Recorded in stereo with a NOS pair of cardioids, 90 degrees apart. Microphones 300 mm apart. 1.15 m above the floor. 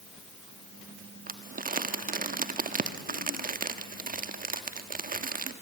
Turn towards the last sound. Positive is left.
turn(degrees=-30)